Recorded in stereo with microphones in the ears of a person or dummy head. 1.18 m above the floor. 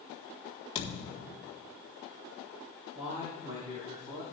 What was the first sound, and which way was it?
A thud, 35° left (ahead or behind).